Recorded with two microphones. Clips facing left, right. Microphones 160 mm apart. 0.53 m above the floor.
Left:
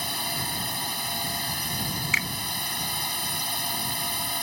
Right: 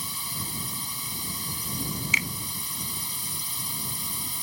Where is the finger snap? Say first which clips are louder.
Even; 20° right (ahead or behind).